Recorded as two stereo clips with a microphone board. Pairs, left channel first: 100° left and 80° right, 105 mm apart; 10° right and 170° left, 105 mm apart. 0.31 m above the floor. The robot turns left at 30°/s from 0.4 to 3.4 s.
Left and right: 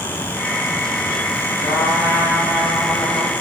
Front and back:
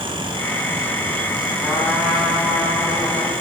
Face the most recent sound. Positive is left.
turn(degrees=45)